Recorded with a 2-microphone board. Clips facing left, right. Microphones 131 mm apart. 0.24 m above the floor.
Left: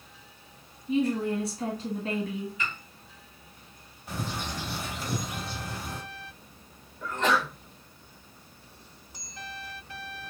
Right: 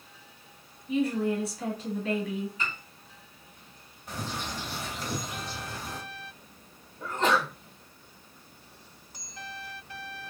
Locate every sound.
0.9 s a woman speaking: 30° left (ahead or behind), 1.5 m
2.6 s a piano: 35° right (ahead or behind), 1.7 m
4.1 s a bird: centre (ahead or behind), 0.8 m
7.0 s a sneeze: 30° right (ahead or behind), 2 m